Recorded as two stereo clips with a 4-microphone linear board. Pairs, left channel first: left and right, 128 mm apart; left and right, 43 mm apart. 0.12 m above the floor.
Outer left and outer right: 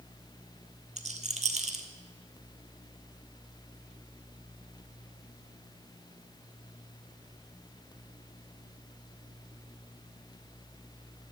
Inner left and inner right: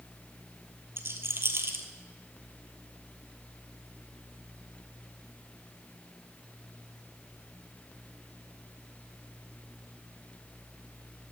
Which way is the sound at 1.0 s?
70° right (ahead or behind).